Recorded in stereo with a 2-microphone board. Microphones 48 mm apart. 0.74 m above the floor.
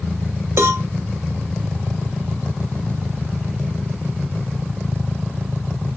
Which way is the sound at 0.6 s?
55° right (ahead or behind).